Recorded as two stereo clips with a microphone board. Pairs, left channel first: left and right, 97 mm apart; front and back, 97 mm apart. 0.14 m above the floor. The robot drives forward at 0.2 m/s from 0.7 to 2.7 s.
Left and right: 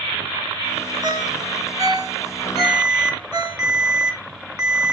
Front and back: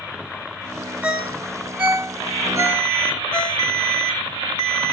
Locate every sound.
1.0 s a ringtone: 110° right, 1.3 m; by 3.6 s 125° right, 1.5 m
2.6 s an alarm: 145° right, 4 m